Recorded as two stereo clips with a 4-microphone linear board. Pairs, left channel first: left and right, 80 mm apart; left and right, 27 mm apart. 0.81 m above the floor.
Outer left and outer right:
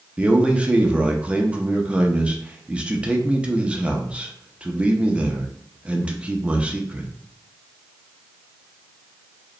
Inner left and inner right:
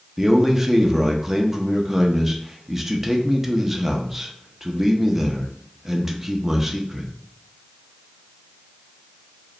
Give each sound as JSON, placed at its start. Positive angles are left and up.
{"t": 0.2, "sound": "a man speaking", "side_deg": -15, "distance_m": 0.6}